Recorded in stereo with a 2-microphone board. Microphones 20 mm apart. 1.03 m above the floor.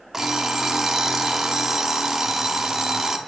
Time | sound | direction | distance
0.1 | an alarm clock | 25° right (ahead or behind) | 0.6 m